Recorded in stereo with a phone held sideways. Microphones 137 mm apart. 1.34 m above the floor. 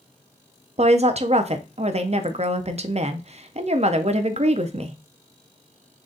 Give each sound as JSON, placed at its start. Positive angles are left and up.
{"t": 0.8, "sound": "a woman speaking", "side_deg": -50, "distance_m": 0.5}